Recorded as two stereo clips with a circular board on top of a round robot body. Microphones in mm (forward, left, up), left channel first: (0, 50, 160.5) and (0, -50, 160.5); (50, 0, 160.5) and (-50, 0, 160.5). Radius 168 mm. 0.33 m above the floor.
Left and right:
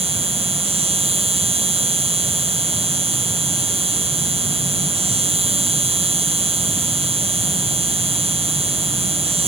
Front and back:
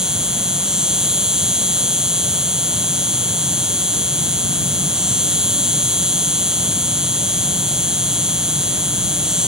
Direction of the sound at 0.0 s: 95° right.